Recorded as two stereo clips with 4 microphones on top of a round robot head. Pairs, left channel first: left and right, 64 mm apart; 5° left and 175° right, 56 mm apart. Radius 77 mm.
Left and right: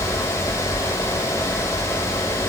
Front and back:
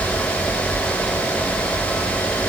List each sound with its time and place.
Only background noise.